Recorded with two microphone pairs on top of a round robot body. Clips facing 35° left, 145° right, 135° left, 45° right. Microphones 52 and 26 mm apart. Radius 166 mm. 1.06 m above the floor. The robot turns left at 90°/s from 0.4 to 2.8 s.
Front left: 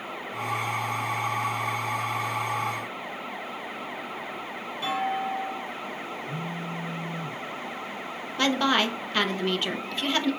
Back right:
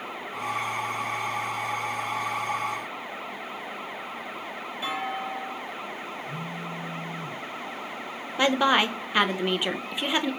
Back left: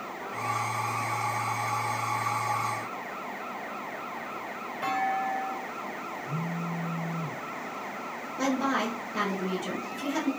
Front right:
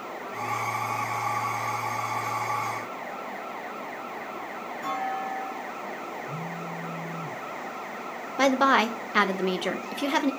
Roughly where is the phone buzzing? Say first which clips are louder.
Front left 1 dB, back left 1 dB; behind left.